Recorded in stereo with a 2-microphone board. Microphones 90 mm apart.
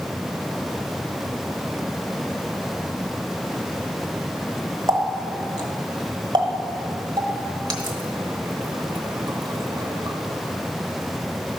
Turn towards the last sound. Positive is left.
turn(degrees=-45)  # may be behind; listen again after turning